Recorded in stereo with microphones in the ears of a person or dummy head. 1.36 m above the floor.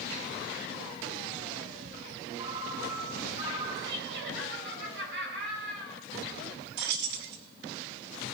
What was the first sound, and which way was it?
A ringtone, 25° right (ahead or behind).